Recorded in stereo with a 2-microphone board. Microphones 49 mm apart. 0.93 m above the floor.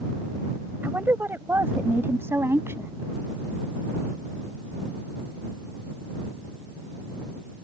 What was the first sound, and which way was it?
A woman speaking, 40° right (ahead or behind).